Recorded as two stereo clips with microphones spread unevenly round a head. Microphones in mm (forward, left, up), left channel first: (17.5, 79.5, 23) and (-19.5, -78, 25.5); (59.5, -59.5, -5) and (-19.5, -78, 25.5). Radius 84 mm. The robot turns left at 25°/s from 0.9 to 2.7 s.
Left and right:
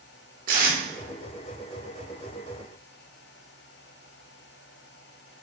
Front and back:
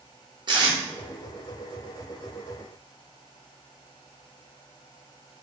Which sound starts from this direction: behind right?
Tape being pulled, at 0.5 s.